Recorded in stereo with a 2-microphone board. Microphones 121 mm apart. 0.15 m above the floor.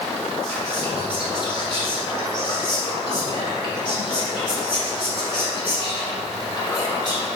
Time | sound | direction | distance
0.4 | whispering | 40° left (ahead or behind) | 1.4 m